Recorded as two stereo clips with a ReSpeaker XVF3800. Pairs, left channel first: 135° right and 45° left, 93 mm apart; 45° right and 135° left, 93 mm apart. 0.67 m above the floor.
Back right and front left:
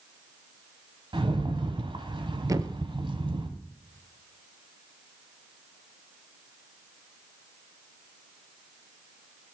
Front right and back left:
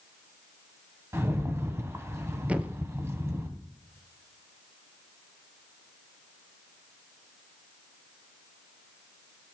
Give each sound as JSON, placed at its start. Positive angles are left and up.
{"t": 1.1, "sound": "a rattle", "azimuth_deg": 75, "distance_m": 1.7}
{"t": 2.5, "sound": "a thud", "azimuth_deg": 65, "distance_m": 0.8}